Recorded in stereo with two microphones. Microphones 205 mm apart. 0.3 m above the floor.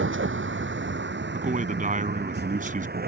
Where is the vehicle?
75° right (ahead or behind); by 3.1 s 50° right (ahead or behind).